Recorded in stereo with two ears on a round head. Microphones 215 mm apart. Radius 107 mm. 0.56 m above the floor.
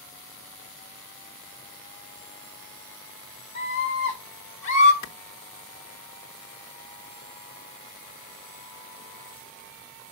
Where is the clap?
65° left (ahead or behind), 0.9 m.